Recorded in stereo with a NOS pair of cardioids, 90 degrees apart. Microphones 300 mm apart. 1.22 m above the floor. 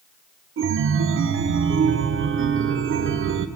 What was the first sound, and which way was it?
A chime, 45° right.